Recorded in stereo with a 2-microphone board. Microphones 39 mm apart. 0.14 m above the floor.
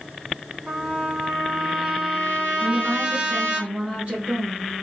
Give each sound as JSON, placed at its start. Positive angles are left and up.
{"t": 0.7, "sound": "a trumpet", "side_deg": -30, "distance_m": 1.6}
{"t": 2.6, "sound": "a woman speaking", "side_deg": -35, "distance_m": 2.0}